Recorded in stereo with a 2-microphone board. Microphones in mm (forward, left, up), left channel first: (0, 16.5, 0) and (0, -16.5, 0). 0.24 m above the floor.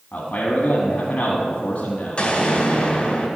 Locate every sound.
0.1 s a man speaking: 50° left (ahead or behind), 1.5 m
2.2 s an explosion: 35° left (ahead or behind), 2 m